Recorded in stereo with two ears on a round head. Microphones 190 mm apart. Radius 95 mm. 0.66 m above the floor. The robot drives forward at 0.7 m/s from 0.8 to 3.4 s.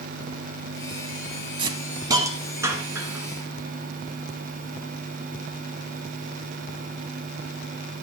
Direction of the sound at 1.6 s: 25° right (ahead or behind).